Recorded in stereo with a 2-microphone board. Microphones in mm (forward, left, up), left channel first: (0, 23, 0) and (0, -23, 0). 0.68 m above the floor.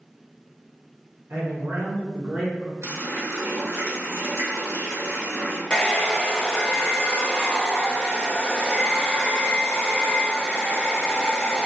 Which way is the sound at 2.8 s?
80° right.